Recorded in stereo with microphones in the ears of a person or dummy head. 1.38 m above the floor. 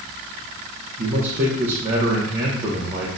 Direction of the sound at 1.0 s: 35° right (ahead or behind).